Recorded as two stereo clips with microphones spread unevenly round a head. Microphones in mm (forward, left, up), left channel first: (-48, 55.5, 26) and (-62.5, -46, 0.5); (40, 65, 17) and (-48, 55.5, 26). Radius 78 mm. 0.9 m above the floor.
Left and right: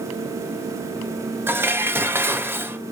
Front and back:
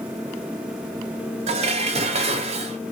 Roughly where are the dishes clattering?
Behind.